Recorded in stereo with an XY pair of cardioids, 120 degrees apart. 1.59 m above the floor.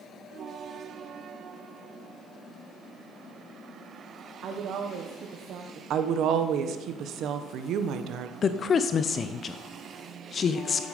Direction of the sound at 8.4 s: 40° left.